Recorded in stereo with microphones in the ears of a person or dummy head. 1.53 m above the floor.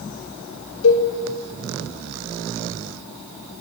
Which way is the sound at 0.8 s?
80° left.